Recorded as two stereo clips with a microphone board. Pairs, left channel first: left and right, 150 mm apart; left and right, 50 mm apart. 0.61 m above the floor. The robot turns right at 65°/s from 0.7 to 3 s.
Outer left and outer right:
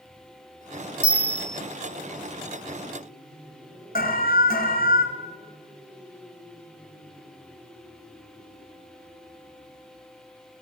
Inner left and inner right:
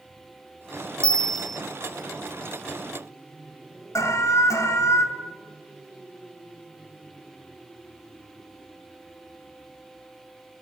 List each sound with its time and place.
1.0 s a bell: 15° left (ahead or behind), 0.7 m; by 1.6 s centre (ahead or behind), 0.7 m
4.0 s an alarm: 80° left, 2 m